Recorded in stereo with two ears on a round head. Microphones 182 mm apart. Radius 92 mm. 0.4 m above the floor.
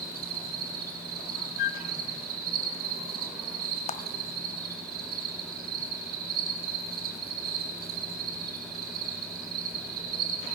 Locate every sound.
0.0 s an insect: 50° right (ahead or behind), 4 m
1.6 s a flute: 60° left (ahead or behind), 1.0 m
3.9 s a clap: 35° left (ahead or behind), 1.4 m